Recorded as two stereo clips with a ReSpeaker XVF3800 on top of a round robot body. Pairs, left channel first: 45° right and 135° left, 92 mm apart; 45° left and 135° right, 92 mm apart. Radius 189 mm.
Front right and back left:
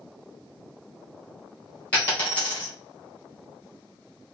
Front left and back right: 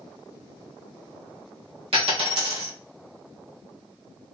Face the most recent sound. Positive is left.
turn(degrees=-120)